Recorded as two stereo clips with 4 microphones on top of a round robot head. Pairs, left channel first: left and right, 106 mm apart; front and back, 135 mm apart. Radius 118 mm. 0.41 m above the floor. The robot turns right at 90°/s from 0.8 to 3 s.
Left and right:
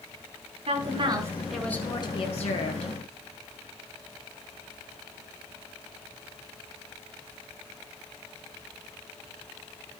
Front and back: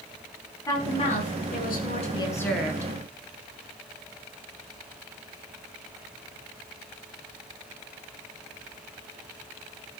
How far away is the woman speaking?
About 6 m.